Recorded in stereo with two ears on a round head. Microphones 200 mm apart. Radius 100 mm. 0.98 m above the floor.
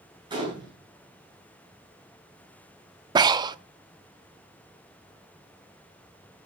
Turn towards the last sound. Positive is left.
turn(degrees=-20)  # may be behind; listen again after turning